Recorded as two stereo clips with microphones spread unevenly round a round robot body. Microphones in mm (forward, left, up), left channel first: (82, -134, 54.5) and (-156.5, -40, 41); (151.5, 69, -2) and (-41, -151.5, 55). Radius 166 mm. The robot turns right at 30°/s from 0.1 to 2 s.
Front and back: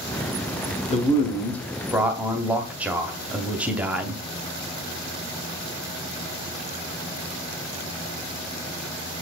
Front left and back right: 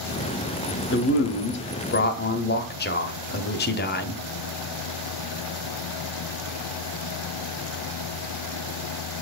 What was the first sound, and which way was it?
A man speaking, 45° left.